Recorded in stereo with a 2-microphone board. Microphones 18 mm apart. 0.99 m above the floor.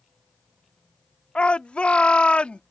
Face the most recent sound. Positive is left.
turn(degrees=80)